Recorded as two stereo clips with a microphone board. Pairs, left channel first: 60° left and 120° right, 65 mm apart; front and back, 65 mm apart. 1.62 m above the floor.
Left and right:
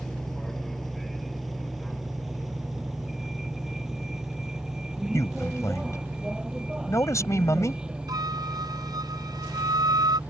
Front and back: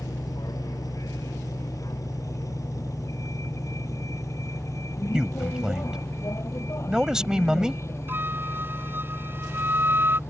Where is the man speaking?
100° left.